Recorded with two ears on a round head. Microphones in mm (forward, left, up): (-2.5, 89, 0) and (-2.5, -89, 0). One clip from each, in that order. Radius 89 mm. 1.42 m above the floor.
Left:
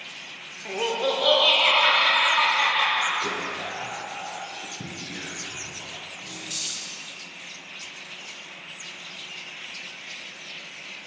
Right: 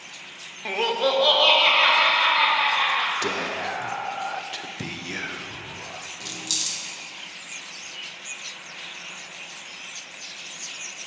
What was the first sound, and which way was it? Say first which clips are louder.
Laughter: right 3 dB; 35° right (ahead or behind).